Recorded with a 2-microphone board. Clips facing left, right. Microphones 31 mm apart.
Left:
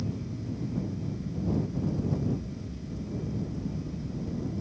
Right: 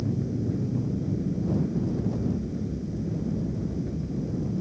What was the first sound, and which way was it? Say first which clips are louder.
An aircraft: right 7 dB; 70° right (ahead or behind).